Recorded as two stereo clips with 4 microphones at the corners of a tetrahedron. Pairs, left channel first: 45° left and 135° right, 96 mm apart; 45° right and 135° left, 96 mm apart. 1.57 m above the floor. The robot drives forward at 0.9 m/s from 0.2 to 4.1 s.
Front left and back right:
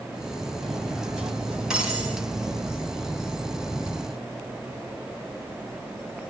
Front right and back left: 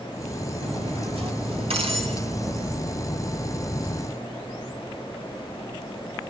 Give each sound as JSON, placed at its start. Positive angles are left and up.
{"t": 0.6, "sound": "cutlery clinking", "azimuth_deg": 135, "distance_m": 6.0}